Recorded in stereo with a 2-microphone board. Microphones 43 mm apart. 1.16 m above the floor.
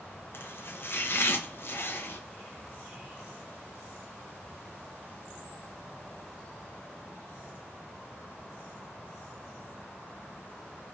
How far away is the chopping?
About 0.8 m.